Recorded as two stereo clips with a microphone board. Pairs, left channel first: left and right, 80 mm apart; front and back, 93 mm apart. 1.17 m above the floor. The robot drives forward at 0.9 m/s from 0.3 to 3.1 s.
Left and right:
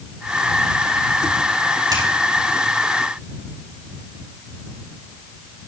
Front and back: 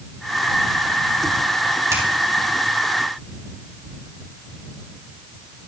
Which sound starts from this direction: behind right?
A finger snap, at 1.9 s.